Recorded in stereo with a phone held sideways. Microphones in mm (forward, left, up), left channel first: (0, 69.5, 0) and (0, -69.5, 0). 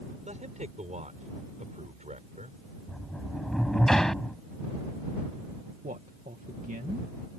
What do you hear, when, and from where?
0.2 s a man speaking: 65° right (ahead or behind)
2.9 s a sliding door: 5° left (ahead or behind)
5.8 s a man speaking: 80° right